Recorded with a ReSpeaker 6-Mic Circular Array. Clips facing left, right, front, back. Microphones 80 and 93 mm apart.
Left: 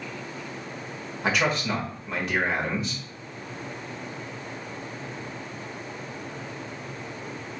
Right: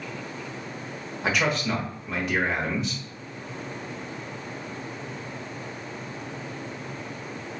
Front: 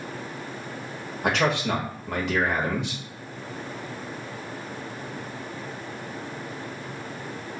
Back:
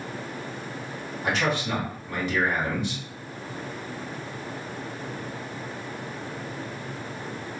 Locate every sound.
1.2 s a man speaking: straight ahead, 0.9 m